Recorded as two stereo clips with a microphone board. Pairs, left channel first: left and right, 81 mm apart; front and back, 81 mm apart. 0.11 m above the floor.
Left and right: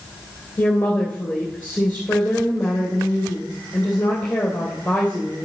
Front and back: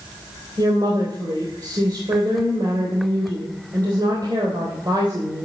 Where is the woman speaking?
160° left, 3 m.